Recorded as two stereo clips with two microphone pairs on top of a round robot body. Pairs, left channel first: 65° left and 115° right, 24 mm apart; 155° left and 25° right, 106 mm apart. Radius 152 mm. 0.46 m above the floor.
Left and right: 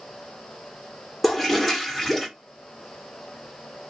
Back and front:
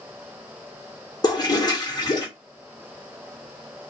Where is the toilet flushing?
155° left, 1.8 m.